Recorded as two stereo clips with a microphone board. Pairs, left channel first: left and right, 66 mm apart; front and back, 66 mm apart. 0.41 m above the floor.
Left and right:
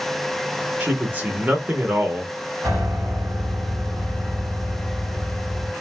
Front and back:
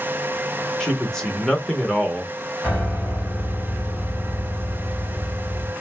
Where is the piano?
90° right, 2.5 m.